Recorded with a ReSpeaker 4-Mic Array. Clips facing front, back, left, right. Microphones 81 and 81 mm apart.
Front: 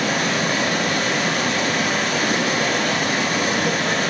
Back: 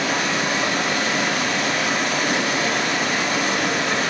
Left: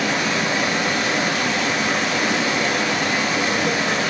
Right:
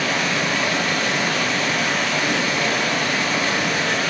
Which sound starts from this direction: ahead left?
Running water, at 0.0 s.